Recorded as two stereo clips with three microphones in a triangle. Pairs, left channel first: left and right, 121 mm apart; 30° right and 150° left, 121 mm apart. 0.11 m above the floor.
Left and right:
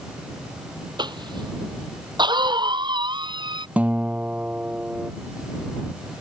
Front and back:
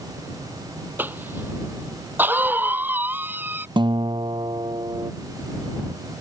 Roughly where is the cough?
Behind right.